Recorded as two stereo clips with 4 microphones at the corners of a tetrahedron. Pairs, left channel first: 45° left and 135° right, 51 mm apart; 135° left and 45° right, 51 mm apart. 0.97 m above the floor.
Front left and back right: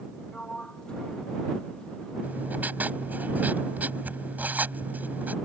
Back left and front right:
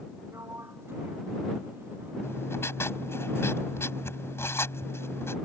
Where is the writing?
170° left.